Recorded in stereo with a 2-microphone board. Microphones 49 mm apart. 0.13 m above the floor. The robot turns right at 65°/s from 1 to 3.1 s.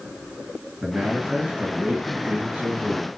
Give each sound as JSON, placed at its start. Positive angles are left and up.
{"t": 0.8, "sound": "a man speaking", "azimuth_deg": -155, "distance_m": 2.0}